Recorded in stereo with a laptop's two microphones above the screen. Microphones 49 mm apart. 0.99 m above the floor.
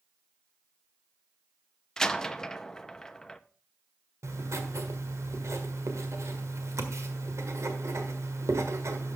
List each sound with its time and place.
2.0 s a door slam: 10° left (ahead or behind), 0.7 m
4.2 s writing: 80° right, 1.6 m